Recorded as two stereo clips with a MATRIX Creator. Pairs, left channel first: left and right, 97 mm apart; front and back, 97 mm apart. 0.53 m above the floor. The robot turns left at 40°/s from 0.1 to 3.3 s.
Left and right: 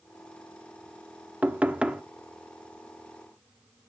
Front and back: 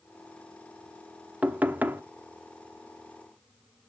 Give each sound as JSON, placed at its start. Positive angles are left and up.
{"t": 1.4, "sound": "knocking", "azimuth_deg": -135, "distance_m": 0.9}